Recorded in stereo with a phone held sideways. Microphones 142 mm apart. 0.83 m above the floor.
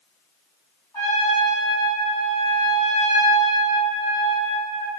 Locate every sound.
0.9 s a trumpet: 25° left (ahead or behind), 1.8 m